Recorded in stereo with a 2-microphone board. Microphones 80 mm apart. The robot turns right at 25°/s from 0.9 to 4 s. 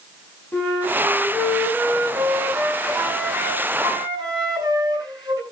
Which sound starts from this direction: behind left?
A flute, at 0.5 s.